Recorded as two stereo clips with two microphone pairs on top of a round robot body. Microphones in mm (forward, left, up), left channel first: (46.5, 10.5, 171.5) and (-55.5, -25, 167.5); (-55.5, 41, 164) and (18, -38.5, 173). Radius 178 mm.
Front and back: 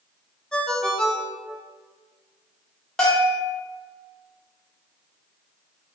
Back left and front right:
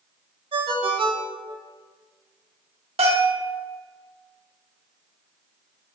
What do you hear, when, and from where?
0.5 s a ringtone: 65° right, 0.6 m
3.0 s a bell: 65° right, 1.0 m